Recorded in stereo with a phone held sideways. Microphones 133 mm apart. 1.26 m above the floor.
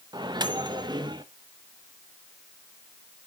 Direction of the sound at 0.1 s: 35° right (ahead or behind).